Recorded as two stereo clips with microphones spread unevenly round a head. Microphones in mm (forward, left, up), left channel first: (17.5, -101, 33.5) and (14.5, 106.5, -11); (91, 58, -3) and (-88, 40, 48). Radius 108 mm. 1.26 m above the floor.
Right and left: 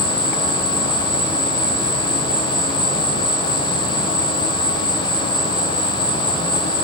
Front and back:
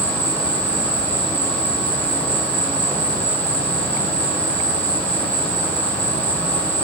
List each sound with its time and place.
0.0 s an insect: 155° right, 4 m